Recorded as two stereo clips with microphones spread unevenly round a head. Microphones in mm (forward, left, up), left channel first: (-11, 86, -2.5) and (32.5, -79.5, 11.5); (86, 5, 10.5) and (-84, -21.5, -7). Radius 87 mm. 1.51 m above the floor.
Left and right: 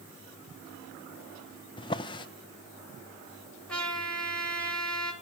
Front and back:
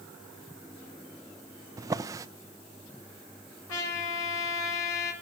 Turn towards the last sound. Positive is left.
turn(degrees=20)